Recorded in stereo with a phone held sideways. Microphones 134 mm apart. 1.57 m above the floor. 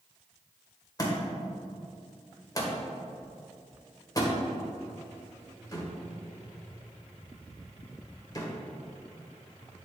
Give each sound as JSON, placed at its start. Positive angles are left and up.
{"t": 1.0, "sound": "a thud", "side_deg": 30, "distance_m": 1.4}